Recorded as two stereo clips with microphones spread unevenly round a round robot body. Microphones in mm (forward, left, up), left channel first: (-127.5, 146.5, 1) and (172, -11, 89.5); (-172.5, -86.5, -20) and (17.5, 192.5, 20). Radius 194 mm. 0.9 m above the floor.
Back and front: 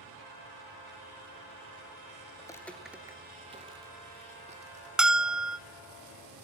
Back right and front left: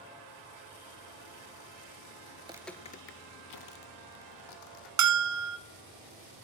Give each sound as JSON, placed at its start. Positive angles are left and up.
{"t": 2.4, "sound": "footsteps", "azimuth_deg": 55, "distance_m": 0.9}
{"t": 5.0, "sound": "a bell", "azimuth_deg": 75, "distance_m": 0.9}